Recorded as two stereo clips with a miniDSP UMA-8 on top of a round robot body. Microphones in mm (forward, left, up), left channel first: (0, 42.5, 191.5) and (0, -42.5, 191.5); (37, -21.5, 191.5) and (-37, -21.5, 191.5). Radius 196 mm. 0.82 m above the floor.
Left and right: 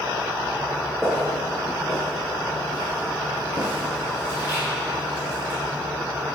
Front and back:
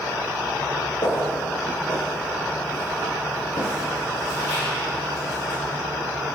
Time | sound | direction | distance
1.0 | footsteps | straight ahead | 0.8 m